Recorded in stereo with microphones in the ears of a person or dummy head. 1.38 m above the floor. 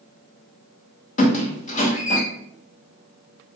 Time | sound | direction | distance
1.2 | a squeak | 45° left (ahead or behind) | 0.8 m